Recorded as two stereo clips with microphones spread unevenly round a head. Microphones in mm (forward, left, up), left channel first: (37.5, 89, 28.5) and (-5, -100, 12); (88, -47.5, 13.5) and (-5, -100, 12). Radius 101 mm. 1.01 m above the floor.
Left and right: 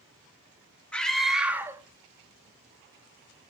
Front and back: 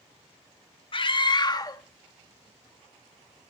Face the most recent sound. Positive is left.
turn(degrees=-65)